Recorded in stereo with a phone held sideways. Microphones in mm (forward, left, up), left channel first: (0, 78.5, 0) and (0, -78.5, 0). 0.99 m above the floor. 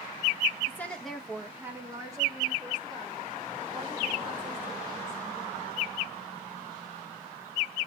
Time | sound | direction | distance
0.7 | a woman speaking | 20° left (ahead or behind) | 1.1 m